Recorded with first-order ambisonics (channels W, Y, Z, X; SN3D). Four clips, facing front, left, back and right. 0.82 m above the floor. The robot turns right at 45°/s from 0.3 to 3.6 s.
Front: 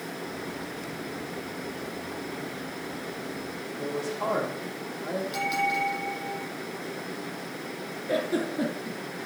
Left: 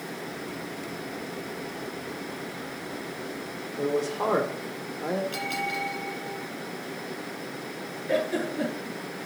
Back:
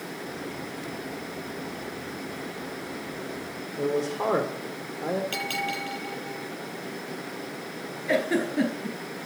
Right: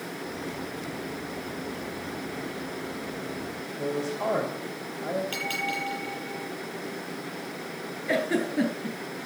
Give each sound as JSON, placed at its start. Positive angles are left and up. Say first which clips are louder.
{"t": 3.8, "sound": "a man speaking", "louder": "left 3 dB, back 5 dB", "azimuth_deg": 140, "distance_m": 1.9}
{"t": 5.3, "sound": "a bell", "louder": "even, front 3 dB", "azimuth_deg": -150, "distance_m": 8.5}
{"t": 8.1, "sound": "a giggle", "louder": "right 1 dB, back 3 dB", "azimuth_deg": -145, "distance_m": 4.5}